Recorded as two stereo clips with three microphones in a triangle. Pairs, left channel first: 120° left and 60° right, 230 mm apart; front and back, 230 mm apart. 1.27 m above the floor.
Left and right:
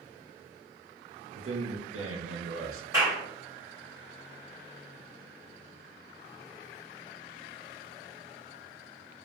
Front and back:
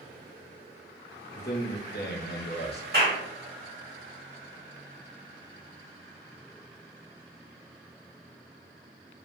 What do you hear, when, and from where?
1.3 s a man speaking: 45° right, 0.7 m
2.9 s a clap: 135° right, 1.5 m